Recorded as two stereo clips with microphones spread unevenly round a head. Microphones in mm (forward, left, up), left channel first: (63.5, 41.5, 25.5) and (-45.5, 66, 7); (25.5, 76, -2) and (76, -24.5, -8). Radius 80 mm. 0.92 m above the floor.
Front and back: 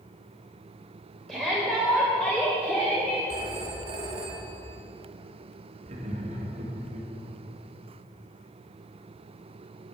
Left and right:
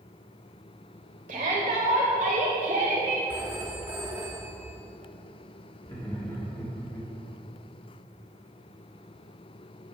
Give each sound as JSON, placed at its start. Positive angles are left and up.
{"t": 1.3, "sound": "a shout", "azimuth_deg": -100, "distance_m": 3.5}
{"t": 3.3, "sound": "a phone ringing", "azimuth_deg": -145, "distance_m": 1.1}
{"t": 5.8, "sound": "laughter", "azimuth_deg": -170, "distance_m": 2.0}